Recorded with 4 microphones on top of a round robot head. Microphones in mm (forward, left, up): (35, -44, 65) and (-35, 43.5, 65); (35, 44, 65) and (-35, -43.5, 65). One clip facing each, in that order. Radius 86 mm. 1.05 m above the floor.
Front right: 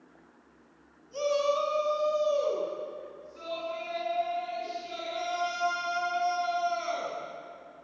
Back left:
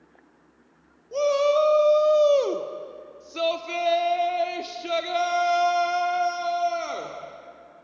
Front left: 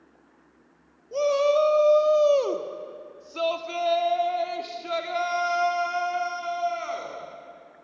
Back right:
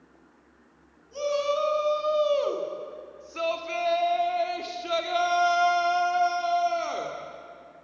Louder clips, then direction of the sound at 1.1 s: Back left 7 dB, front left 5 dB; 90° left.